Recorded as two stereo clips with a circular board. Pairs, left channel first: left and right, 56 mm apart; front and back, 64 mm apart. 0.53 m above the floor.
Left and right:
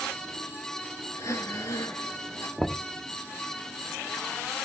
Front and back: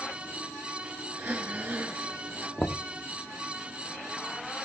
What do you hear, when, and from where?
1.1 s breathing: 110° left, 3 m
2.6 s knocking: straight ahead, 0.5 m